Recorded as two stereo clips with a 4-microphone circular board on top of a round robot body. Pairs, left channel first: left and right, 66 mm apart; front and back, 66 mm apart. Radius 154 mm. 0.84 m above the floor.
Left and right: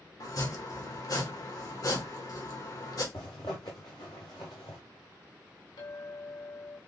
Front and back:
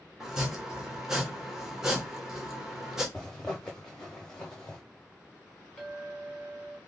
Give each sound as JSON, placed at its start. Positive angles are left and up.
{"t": 0.2, "sound": "chopping", "azimuth_deg": 100, "distance_m": 1.5}
{"t": 3.1, "sound": "a zipper", "azimuth_deg": 80, "distance_m": 0.6}
{"t": 5.8, "sound": "a clink", "azimuth_deg": 85, "distance_m": 1.9}